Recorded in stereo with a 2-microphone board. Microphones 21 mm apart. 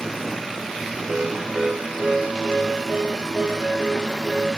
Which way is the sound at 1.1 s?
70° right (ahead or behind).